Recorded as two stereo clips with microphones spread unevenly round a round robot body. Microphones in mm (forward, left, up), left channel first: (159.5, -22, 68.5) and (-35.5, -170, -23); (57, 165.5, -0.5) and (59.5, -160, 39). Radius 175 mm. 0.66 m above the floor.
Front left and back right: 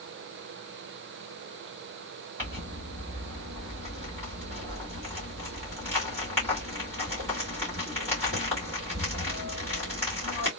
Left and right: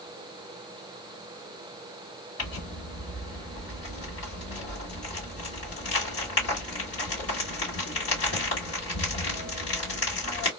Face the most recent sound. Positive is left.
turn(degrees=130)